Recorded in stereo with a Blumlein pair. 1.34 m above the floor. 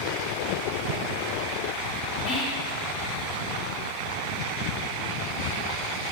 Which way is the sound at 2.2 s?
50° left.